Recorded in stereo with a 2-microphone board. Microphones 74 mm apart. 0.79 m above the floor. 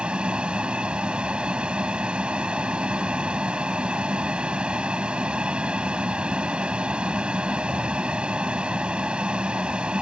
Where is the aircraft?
15° right (ahead or behind).